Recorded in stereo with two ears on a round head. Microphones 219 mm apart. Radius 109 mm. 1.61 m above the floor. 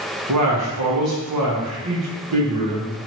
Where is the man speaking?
75° right (ahead or behind), 1.4 m.